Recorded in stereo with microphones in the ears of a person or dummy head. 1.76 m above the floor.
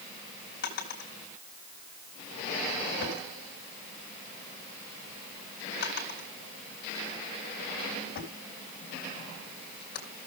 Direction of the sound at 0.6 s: 55° left (ahead or behind).